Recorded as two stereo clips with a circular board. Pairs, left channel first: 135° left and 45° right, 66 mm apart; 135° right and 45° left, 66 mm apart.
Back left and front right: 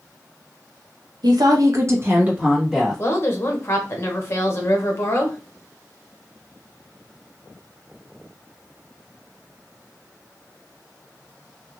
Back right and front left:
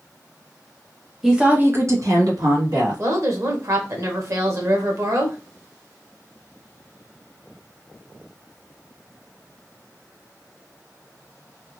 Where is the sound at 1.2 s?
40° right, 0.8 m; by 3.0 s 35° left, 1.5 m.